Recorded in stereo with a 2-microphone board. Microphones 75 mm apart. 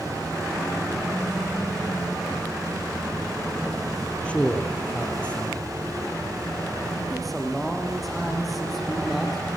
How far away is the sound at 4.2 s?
About 3 m.